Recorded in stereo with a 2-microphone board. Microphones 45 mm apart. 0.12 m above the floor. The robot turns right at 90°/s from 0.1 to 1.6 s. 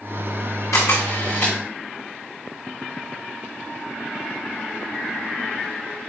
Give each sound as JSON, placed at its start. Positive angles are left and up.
{"t": 0.7, "sound": "a camera shutter", "azimuth_deg": 90, "distance_m": 5.5}